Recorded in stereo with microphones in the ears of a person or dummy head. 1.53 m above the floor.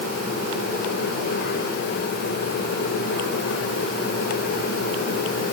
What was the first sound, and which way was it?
Only background noise.